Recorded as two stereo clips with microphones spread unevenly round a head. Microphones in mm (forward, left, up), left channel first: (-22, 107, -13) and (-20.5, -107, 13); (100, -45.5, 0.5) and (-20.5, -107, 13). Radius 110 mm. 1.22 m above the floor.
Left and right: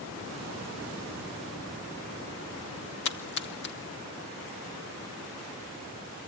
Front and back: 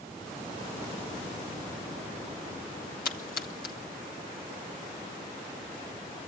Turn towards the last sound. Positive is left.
turn(degrees=50)